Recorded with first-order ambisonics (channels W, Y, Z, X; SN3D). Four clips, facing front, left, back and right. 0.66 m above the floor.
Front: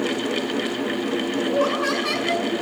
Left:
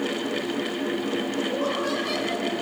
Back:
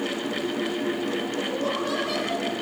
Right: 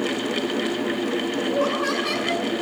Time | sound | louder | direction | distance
1.5 | laughter | right 3 dB, front 8 dB | 30° right | 7 m